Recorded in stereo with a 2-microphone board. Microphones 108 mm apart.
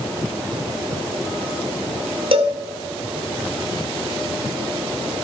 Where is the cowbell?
55° right (ahead or behind), 1.8 m.